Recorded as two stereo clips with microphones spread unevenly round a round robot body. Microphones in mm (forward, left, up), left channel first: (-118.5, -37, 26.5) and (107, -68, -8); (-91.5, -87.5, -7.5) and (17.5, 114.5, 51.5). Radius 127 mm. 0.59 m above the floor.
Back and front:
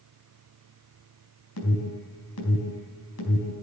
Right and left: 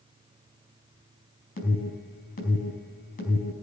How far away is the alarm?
About 4.5 m.